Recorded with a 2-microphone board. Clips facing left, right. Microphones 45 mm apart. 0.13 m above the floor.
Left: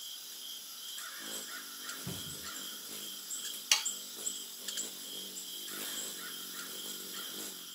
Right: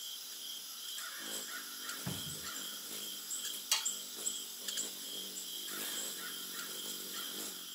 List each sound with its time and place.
2.1 s a cupboard door: 35° right (ahead or behind), 1.0 m
3.7 s sawing: 65° left (ahead or behind), 0.9 m